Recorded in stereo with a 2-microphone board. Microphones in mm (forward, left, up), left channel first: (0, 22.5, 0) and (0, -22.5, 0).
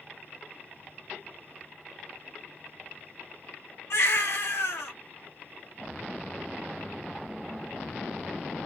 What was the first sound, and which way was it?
A baby crying, 80° left.